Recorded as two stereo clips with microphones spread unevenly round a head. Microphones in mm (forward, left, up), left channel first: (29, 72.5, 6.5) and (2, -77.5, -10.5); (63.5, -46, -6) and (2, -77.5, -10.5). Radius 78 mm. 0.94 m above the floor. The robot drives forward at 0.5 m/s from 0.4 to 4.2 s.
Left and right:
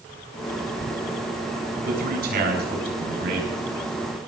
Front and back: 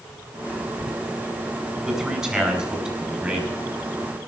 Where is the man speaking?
75° right, 7 m; by 3.5 s 80° right, 6.5 m.